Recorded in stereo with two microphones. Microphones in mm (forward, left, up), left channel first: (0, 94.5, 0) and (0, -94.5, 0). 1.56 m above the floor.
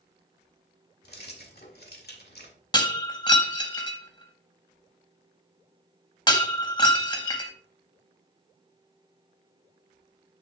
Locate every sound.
1.0 s keys jangling: 55° left (ahead or behind), 1.8 m
2.7 s breaking glass: 25° left (ahead or behind), 1.5 m